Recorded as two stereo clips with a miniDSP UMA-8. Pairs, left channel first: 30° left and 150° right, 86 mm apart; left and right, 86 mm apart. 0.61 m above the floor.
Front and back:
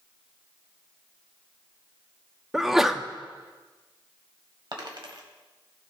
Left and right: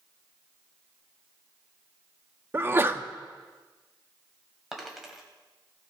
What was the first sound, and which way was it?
A sneeze, 65° right.